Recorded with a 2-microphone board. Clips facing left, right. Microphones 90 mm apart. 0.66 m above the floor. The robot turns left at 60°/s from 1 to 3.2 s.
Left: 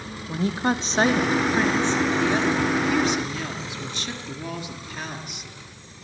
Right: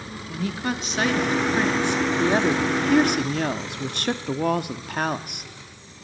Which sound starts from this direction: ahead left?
A woman speaking, at 0.3 s.